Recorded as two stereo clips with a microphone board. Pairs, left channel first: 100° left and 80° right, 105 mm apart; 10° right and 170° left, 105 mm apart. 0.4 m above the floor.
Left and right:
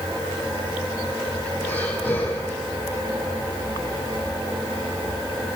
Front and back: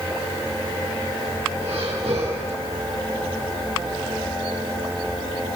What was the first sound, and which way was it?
Breathing, 175° left.